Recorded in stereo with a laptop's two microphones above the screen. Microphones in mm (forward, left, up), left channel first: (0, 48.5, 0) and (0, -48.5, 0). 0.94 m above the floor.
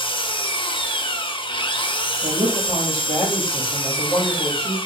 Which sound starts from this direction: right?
A woman speaking, at 2.2 s.